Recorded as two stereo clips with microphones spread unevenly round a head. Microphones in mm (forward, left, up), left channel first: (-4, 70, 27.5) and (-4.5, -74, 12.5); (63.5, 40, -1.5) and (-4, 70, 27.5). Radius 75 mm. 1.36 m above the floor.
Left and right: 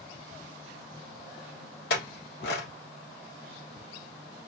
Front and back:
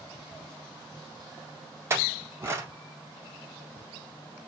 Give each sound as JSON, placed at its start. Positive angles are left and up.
{"t": 1.9, "sound": "a clink", "azimuth_deg": 105, "distance_m": 1.4}